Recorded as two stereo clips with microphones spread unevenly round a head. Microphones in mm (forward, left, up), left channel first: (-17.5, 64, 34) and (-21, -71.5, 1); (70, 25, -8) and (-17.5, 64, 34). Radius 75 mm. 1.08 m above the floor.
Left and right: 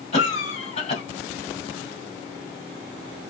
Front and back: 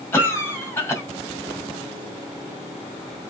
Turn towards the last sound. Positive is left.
turn(degrees=40)